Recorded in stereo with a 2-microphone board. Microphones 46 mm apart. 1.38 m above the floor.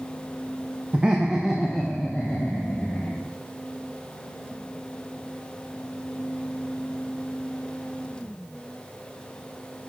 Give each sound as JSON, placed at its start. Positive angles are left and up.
{"t": 0.9, "sound": "laughter", "side_deg": -25, "distance_m": 0.8}